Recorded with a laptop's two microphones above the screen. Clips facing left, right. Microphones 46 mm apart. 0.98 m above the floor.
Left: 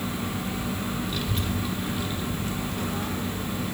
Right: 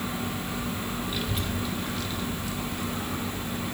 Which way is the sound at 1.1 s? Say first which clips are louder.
Left 1 dB; 10° right (ahead or behind).